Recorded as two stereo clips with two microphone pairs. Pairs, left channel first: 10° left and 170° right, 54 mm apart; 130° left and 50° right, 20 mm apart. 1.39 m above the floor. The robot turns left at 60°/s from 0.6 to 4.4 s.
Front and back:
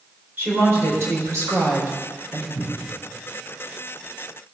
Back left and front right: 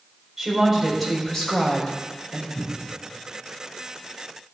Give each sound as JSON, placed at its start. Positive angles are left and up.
{"t": 0.4, "sound": "a woman speaking", "azimuth_deg": -120, "distance_m": 4.0}
{"t": 2.5, "sound": "a cupboard door", "azimuth_deg": 95, "distance_m": 4.5}